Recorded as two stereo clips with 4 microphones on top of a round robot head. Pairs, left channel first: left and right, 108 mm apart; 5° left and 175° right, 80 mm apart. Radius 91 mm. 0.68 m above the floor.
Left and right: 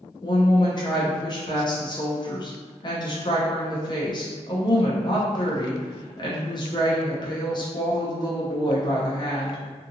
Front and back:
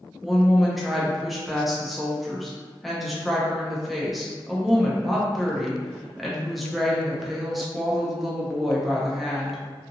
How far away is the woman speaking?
About 0.7 m.